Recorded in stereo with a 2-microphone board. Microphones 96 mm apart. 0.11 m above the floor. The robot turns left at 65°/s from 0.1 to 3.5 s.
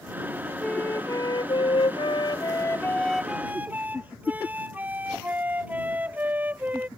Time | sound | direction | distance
0.6 | a flute | 170° left | ?